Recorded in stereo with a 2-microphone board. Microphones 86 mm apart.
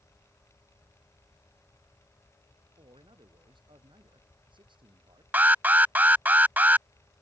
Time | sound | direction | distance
2.8 | a man speaking | 70° right (ahead or behind) | ?
5.3 | an alarm | 20° right (ahead or behind) | ?